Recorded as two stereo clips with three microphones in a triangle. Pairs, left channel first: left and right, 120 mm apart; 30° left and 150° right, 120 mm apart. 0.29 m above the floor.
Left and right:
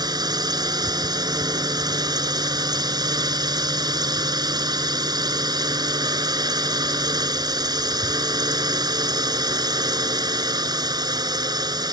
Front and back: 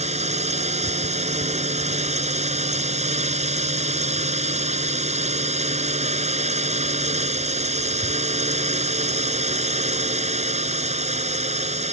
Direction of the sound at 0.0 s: 145° right.